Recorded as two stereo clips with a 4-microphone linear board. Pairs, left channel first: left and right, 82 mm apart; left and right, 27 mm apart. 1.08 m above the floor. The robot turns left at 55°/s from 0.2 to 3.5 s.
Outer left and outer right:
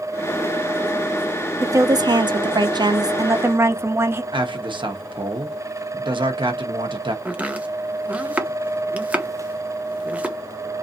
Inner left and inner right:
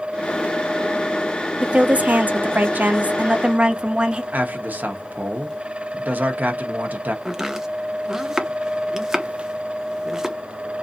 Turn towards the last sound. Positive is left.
turn(degrees=-20)  # may be behind; listen again after turning